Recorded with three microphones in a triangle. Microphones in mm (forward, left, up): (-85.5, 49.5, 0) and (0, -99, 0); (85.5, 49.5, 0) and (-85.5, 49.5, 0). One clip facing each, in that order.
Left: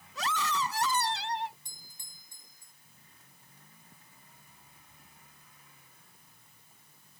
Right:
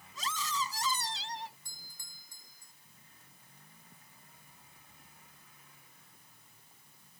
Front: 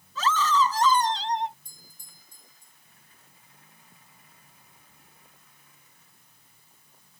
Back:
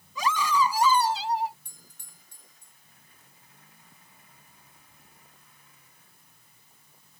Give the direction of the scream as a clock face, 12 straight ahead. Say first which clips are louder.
Left 5 dB, front 1 dB; 9 o'clock.